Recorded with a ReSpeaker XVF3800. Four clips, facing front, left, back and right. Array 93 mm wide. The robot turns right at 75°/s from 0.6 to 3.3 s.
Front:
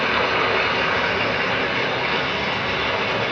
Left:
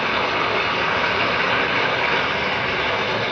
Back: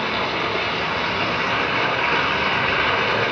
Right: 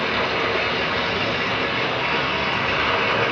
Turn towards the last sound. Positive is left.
turn(degrees=-120)